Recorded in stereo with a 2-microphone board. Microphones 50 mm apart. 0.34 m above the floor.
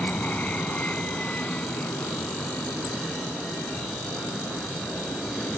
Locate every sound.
0.0 s an aircraft: 30° left (ahead or behind); by 5.6 s 20° left (ahead or behind)